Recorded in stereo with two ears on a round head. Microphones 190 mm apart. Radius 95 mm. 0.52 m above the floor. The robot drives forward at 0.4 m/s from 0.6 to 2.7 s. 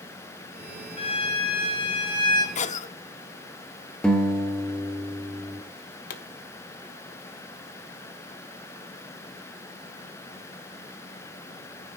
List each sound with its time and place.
1.0 s a violin: 25° left (ahead or behind), 2.5 m; by 2.5 s 20° left (ahead or behind), 3 m
2.5 s a cough: 35° left (ahead or behind), 1.0 m
4.0 s a guitar: 5° left (ahead or behind), 2 m
6.1 s a pop: 40° left (ahead or behind), 1.4 m